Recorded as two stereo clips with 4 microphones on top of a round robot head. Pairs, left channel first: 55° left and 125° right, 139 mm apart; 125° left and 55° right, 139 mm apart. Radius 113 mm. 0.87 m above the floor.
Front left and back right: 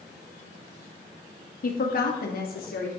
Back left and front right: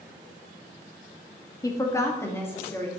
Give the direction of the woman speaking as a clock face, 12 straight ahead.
10 o'clock.